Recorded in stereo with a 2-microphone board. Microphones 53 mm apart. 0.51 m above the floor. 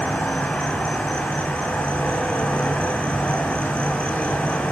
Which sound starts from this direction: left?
An insect, at 0.0 s.